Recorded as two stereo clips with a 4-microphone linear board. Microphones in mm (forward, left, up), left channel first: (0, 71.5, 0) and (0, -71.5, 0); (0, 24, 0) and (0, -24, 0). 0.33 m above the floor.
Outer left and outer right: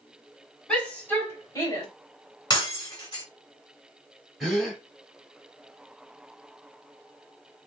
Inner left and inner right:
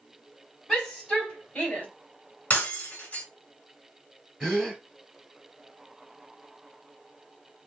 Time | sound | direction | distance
0.7 | a shout | 5° left (ahead or behind) | 2 m
2.5 | breaking glass | 30° left (ahead or behind) | 1.8 m
4.4 | a gasp | centre (ahead or behind) | 1.8 m